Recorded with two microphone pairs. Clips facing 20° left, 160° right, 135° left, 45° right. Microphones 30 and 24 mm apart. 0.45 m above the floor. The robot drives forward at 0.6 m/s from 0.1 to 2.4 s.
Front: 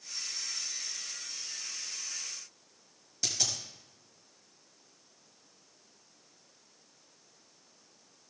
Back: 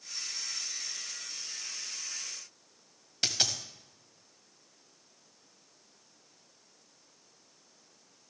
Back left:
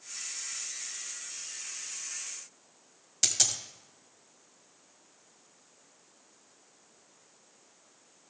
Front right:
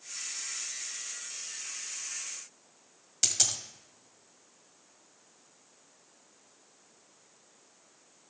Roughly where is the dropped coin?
Behind right.